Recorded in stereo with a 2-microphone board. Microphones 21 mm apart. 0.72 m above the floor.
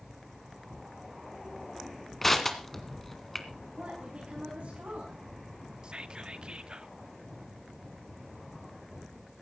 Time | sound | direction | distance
2.2 | crushing | 15° left (ahead or behind) | 1.9 m
3.8 | a woman speaking | 75° right (ahead or behind) | 5.5 m
5.8 | whispering | 45° right (ahead or behind) | 1.2 m